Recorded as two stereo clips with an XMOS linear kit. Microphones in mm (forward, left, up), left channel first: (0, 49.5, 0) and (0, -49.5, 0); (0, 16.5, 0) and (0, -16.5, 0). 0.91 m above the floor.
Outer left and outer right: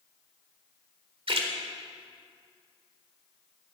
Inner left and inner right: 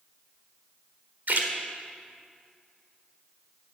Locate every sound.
1.3 s a splash: 65° right (ahead or behind), 1.7 m